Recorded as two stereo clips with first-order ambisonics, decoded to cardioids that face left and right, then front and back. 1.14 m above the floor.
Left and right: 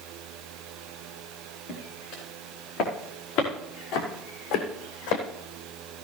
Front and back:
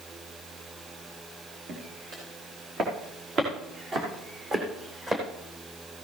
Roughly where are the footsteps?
Behind left.